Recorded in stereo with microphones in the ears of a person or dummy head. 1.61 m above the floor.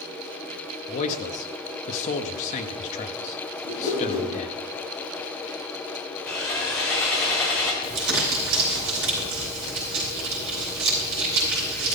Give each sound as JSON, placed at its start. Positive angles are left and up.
{"t": 0.9, "sound": "a man speaking", "side_deg": 45, "distance_m": 0.9}
{"t": 3.6, "sound": "a whoosh", "side_deg": 25, "distance_m": 6.5}
{"t": 6.3, "sound": "sawing", "side_deg": 5, "distance_m": 1.7}
{"t": 7.8, "sound": "crumpling", "side_deg": -70, "distance_m": 4.5}